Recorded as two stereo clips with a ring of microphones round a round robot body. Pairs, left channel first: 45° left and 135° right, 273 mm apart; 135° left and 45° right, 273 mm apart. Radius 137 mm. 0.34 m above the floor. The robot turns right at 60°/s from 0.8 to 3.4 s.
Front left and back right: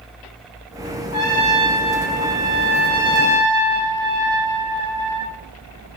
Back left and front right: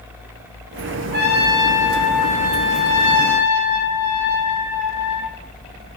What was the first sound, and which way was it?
A trumpet, 25° right.